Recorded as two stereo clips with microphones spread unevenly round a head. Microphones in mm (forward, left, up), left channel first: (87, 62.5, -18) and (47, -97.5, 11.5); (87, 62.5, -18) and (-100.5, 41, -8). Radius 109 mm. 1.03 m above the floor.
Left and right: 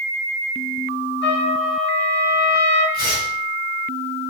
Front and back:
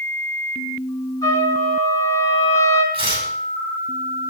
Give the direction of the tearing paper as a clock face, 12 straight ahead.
8 o'clock.